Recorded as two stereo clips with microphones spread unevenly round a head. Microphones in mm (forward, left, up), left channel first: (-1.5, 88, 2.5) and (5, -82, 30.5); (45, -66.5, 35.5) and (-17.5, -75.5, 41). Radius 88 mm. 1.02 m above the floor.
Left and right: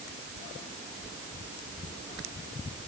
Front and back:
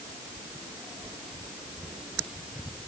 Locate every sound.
Only background noise.